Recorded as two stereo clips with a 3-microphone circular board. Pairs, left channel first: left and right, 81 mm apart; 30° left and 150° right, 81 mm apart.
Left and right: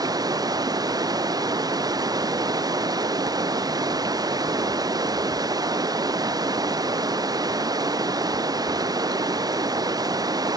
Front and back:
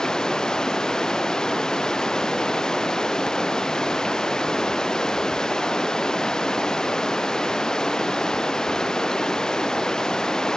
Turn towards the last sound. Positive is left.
turn(degrees=-50)